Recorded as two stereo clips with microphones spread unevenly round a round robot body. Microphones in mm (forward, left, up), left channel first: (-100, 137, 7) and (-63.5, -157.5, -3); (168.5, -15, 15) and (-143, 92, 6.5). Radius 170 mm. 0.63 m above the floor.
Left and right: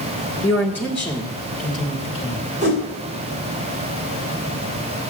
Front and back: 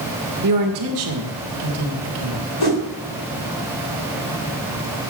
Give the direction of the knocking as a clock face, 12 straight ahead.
No knocking in this recording.